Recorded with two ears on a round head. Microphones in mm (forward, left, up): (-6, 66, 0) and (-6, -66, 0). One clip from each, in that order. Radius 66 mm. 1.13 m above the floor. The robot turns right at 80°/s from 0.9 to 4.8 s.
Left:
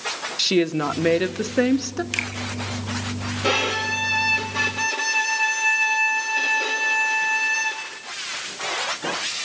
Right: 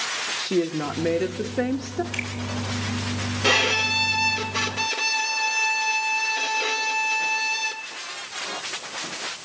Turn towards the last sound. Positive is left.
turn(degrees=-40)